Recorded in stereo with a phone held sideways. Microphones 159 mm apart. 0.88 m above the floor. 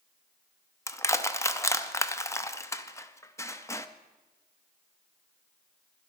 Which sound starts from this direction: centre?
Crushing, at 0.9 s.